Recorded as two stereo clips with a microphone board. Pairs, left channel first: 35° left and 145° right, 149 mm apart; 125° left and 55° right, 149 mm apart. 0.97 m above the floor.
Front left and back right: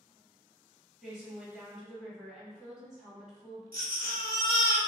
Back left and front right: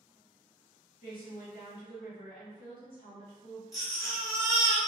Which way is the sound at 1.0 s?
130° left.